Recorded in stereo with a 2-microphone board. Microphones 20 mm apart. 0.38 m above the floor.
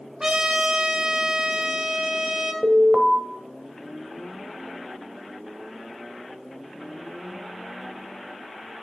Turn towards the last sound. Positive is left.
turn(degrees=-25)  # may be behind; listen again after turning